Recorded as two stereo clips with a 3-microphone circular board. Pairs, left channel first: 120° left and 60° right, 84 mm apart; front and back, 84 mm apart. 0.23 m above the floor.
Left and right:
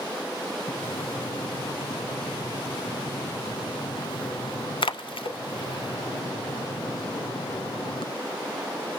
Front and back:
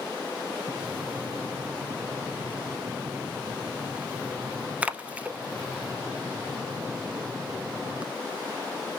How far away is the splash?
About 0.5 m.